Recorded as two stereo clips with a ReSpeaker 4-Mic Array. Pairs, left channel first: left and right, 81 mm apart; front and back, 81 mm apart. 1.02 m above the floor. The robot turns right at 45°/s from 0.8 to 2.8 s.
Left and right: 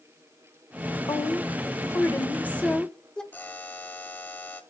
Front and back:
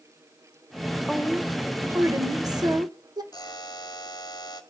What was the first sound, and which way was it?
A woman speaking, 90° left.